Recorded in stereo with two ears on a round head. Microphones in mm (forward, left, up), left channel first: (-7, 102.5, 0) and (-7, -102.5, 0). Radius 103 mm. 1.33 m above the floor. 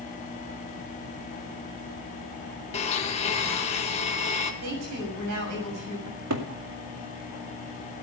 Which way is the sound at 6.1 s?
85° right.